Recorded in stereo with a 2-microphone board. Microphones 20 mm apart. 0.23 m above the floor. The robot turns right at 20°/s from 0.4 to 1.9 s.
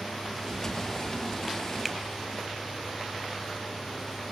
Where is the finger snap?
5° right (ahead or behind), 1.1 m.